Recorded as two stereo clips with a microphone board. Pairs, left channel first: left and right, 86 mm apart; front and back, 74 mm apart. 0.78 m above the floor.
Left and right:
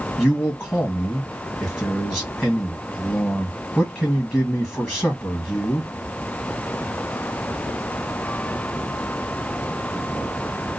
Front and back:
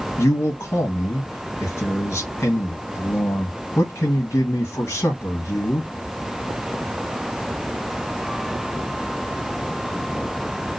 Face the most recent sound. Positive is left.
turn(degrees=15)